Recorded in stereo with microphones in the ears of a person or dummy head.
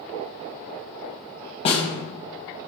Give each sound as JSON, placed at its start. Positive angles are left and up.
{"t": 1.6, "sound": "a snare drum", "side_deg": 30, "distance_m": 0.8}